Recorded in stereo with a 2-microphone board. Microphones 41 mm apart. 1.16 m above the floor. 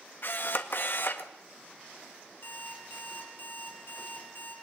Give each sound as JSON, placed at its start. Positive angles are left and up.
{"t": 0.2, "sound": "a camera shutter", "side_deg": 55, "distance_m": 1.6}
{"t": 2.4, "sound": "an alarm clock", "side_deg": 60, "distance_m": 6.5}